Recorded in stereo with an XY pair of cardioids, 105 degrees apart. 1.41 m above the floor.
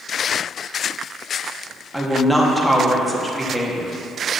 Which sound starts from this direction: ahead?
A woman speaking, at 1.9 s.